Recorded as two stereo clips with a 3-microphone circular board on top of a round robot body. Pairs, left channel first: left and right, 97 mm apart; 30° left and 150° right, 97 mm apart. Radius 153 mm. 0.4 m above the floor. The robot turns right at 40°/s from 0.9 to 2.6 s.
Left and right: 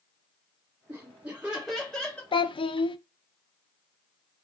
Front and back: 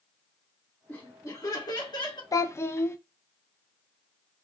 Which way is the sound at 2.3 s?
75° left.